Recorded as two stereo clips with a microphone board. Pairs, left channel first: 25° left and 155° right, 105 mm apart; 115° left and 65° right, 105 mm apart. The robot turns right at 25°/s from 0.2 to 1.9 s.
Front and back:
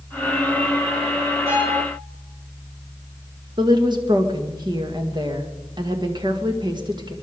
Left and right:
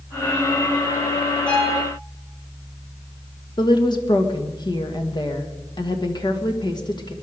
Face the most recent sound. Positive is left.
turn(degrees=160)